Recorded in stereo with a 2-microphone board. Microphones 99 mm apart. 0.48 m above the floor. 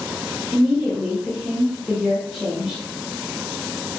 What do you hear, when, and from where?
0.5 s a woman speaking: centre (ahead or behind), 1.4 m